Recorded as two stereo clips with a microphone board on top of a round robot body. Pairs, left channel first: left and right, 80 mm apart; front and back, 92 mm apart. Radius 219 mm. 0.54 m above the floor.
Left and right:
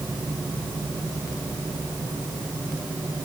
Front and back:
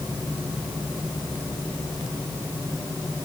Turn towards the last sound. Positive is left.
No sound to turn to.